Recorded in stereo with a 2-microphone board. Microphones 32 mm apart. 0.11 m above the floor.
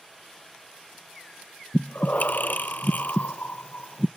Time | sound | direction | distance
1.7 | breathing | 60° left (ahead or behind) | 0.6 m